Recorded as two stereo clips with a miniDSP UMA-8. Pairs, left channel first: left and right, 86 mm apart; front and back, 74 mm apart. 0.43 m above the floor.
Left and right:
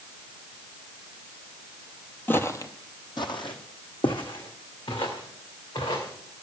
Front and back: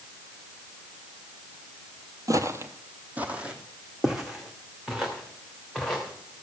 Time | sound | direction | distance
2.3 | footsteps | 155° left | 0.7 m